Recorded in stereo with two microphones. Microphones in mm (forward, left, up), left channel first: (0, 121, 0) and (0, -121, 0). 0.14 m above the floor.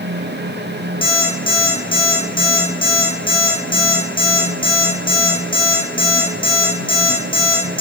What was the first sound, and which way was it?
An alarm clock, 25° left (ahead or behind).